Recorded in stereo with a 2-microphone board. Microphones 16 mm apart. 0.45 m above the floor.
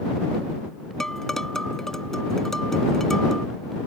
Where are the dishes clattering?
25° left (ahead or behind).